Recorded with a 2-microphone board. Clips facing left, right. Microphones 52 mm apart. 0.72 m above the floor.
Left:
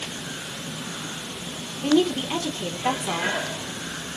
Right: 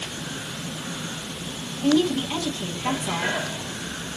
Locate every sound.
1.8 s a woman speaking: 20° left (ahead or behind), 1.1 m